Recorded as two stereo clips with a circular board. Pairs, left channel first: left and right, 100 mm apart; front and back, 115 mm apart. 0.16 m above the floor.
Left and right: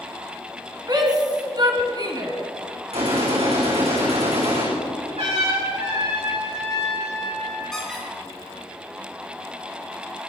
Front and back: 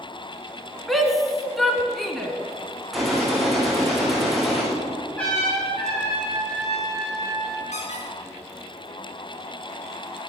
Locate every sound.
0.9 s a shout: 85° right, 1.7 m
2.9 s a gunshot: 90° right, 5 m
5.2 s a trumpet: 80° right, 7.5 m
7.7 s a squeak: 5° left, 5 m